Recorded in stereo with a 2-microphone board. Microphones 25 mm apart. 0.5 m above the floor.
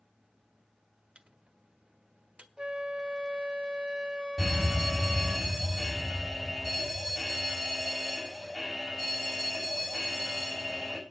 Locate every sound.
1.1 s a microwave: 50° right (ahead or behind), 1.3 m
2.6 s a flute: 35° right (ahead or behind), 0.7 m
4.4 s a fire alarm: centre (ahead or behind), 6 m